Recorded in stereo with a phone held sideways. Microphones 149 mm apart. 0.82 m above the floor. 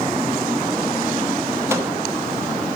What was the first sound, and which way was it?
A microwave, 15° right (ahead or behind).